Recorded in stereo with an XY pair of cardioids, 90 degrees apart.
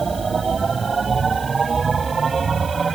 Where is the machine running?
40° right.